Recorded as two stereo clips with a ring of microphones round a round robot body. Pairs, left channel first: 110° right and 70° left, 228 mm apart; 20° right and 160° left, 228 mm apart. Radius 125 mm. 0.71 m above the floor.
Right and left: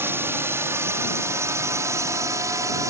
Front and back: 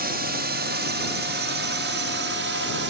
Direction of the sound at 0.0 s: 145° left.